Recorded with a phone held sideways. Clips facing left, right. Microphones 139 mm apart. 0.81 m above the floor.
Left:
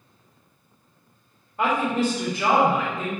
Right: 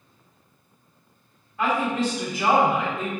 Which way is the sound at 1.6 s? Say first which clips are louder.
Left 1 dB; 30° left (ahead or behind).